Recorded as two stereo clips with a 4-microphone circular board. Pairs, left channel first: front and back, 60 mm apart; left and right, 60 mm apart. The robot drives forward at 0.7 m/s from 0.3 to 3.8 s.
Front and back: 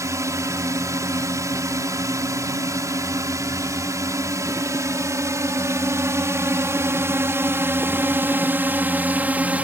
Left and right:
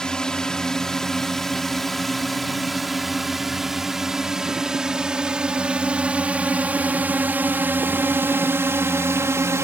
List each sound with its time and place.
0.0 s a drone: 165° left; by 9.6 s 120° right